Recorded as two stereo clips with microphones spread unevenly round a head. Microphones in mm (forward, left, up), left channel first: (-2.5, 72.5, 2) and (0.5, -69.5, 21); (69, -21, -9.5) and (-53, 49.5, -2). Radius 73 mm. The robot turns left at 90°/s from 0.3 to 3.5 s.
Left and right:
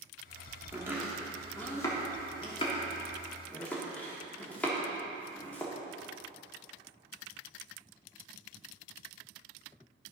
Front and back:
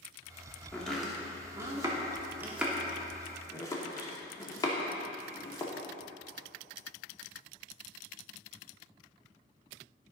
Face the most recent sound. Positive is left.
turn(degrees=5)